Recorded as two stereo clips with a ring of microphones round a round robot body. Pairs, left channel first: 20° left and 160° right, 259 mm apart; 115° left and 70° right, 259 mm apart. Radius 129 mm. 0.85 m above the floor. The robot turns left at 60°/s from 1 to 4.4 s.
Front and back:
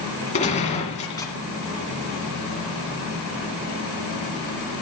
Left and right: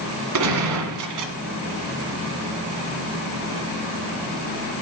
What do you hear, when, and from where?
0.3 s a gunshot: 45° right, 1.8 m; by 1.3 s 65° right, 1.8 m